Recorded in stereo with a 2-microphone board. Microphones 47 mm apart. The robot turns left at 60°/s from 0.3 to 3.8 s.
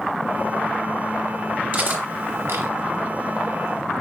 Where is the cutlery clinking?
35° right (ahead or behind), 1.3 m; by 2.7 s 65° right (ahead or behind), 1.3 m.